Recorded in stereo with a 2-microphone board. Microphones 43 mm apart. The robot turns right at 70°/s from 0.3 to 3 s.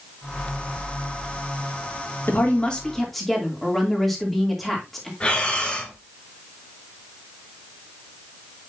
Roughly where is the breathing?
Left.